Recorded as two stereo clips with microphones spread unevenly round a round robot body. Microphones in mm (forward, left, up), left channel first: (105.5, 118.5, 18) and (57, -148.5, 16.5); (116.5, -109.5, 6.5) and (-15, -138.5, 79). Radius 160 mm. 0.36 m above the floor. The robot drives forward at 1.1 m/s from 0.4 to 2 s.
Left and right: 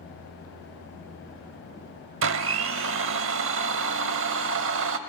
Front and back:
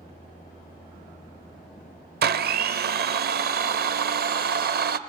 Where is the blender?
150° right, 0.6 m.